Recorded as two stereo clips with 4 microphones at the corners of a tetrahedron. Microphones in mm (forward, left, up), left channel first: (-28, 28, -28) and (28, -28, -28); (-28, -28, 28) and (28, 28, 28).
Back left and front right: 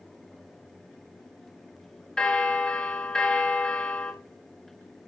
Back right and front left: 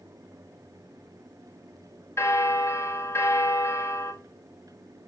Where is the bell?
150° right, 1.0 m.